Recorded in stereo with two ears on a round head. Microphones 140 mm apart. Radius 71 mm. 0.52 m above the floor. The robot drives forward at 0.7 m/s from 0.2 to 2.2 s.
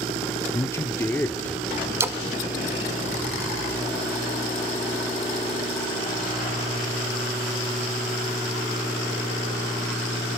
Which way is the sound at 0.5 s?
20° left (ahead or behind).